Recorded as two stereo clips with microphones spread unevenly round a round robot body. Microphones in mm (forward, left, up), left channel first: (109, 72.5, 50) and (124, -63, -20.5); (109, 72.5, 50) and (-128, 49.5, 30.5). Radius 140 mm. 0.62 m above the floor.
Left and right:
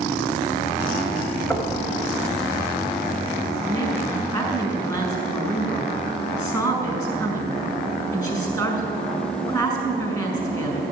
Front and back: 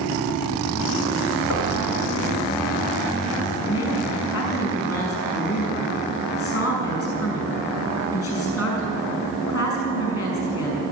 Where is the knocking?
25° left, 2 m.